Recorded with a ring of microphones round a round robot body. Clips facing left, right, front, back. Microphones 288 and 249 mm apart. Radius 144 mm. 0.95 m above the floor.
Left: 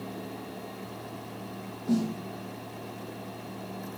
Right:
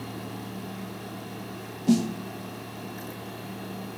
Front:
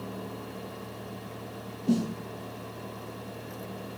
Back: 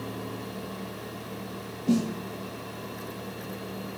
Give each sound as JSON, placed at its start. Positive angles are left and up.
{"t": 1.9, "sound": "a snare drum", "azimuth_deg": -90, "distance_m": 1.0}